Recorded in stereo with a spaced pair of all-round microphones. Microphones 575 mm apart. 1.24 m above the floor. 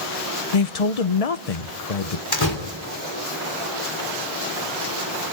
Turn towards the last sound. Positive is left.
turn(degrees=40)  # may be behind; listen again after turning